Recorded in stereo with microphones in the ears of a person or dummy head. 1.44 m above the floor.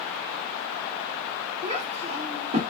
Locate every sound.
1.6 s a child speaking: 45° right (ahead or behind), 2 m